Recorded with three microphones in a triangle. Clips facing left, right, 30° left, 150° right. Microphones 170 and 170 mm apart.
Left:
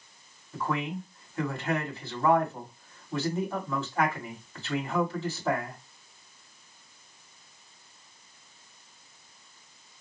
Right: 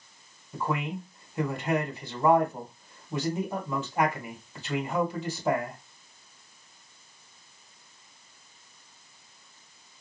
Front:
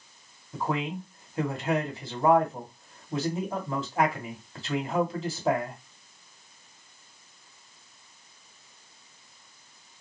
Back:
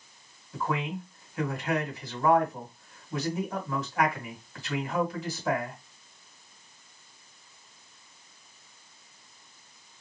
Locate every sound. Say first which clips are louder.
0.5 s a man speaking: even, front 1 dB; 20° right, 1.8 m